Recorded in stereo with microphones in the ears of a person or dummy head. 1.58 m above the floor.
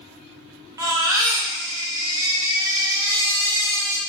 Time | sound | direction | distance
0.8 | a baby crying | 20° right (ahead or behind) | 0.8 m